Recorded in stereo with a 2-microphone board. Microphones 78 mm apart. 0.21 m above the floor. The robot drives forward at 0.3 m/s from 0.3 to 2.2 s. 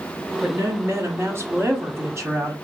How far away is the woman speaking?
About 1.2 m.